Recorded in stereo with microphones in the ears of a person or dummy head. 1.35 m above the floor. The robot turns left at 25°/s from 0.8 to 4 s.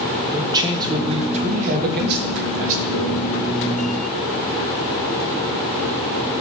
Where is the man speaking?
20° right, 1.6 m; by 3.3 s 85° right, 1.6 m.